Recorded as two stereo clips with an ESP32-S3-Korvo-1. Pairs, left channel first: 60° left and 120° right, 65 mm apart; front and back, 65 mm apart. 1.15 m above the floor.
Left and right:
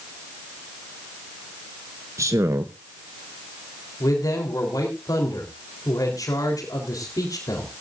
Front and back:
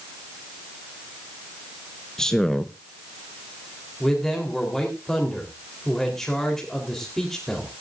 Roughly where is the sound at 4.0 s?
Left.